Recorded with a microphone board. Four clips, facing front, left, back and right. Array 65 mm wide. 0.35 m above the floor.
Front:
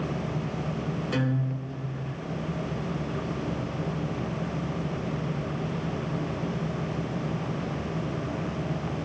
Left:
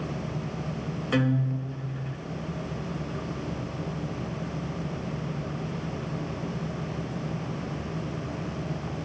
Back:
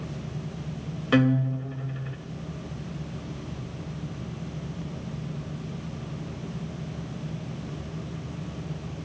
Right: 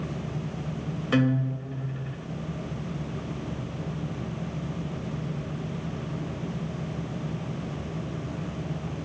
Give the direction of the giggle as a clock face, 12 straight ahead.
I don't hear a giggle.